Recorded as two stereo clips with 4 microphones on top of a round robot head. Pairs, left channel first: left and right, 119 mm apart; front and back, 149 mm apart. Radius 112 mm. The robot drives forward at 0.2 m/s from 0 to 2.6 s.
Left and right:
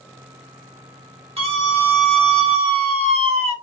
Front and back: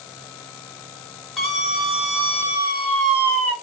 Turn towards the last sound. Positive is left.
turn(degrees=-100)